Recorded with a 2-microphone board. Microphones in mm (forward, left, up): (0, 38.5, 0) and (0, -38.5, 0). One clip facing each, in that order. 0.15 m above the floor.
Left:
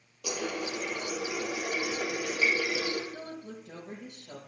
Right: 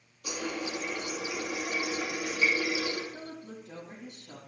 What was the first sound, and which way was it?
A running tap, 70° left (ahead or behind).